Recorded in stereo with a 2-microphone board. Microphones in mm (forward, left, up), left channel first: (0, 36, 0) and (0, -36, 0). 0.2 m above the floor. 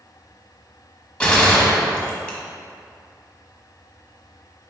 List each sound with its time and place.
1.2 s a gunshot: 15° left (ahead or behind), 1.2 m